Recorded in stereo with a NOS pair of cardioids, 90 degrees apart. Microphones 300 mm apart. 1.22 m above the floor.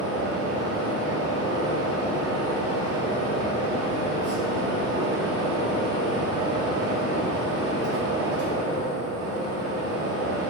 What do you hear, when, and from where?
0.0 s a fan: 55° right, 1.1 m